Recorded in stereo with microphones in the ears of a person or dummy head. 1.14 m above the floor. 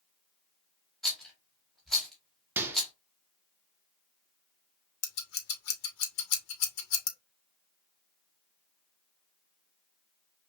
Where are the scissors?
75° left (ahead or behind), 1.2 m.